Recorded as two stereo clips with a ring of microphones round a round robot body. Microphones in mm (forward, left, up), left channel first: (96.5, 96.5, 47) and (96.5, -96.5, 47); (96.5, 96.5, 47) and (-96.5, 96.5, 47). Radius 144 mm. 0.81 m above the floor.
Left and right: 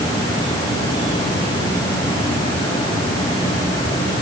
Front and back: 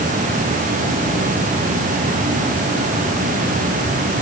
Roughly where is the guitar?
No guitar in this recording.